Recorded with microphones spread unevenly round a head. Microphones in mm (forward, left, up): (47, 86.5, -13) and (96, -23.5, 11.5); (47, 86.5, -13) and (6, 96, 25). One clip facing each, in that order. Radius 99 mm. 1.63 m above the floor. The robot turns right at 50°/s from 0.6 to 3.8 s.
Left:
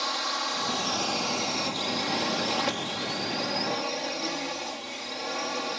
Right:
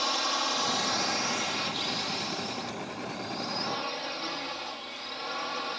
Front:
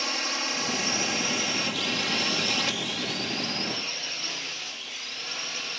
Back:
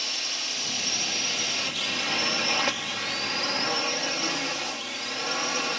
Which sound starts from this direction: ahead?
A drone, at 0.0 s.